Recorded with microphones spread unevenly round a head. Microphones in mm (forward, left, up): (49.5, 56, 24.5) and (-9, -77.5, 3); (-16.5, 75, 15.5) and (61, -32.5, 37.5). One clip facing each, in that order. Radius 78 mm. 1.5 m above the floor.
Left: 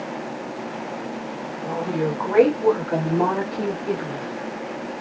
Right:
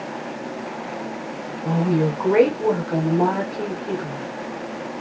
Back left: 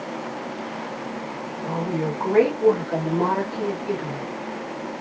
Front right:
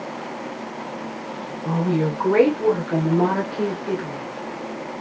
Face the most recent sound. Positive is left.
turn(degrees=-15)